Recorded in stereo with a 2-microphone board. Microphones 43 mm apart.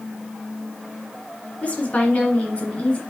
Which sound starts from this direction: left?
A woman speaking, at 1.6 s.